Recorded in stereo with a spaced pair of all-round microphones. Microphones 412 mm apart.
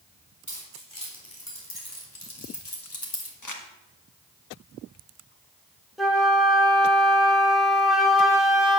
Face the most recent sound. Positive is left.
turn(degrees=0)  # may be behind; listen again after turning